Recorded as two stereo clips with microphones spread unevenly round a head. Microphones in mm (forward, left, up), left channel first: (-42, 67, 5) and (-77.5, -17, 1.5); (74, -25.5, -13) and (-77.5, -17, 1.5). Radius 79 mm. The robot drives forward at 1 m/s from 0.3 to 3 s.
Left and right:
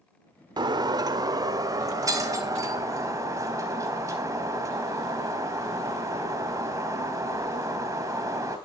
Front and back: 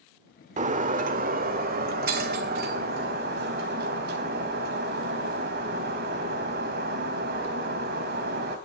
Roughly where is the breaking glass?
Behind right.